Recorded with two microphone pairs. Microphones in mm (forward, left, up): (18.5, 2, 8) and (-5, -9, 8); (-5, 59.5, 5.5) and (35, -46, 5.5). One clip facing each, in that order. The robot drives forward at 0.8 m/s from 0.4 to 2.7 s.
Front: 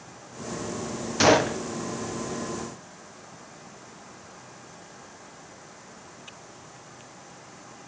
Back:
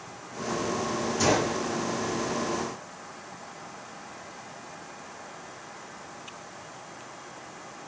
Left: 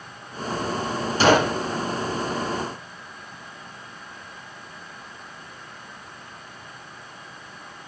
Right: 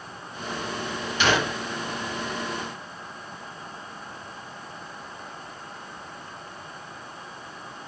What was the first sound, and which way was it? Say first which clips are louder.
A gunshot: front 6 dB, left 6 dB; 55° left.